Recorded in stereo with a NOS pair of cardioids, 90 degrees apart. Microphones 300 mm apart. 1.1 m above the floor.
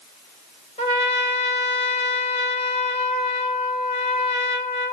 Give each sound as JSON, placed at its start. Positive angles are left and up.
{"t": 0.8, "sound": "a trumpet", "azimuth_deg": 20, "distance_m": 3.0}